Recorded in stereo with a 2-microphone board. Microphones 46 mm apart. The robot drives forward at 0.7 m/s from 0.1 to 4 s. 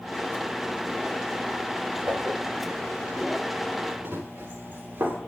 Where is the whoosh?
60° right (ahead or behind), 6 m.